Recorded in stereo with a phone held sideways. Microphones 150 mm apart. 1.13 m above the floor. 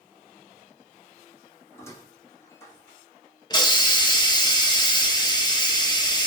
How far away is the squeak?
About 1.0 m.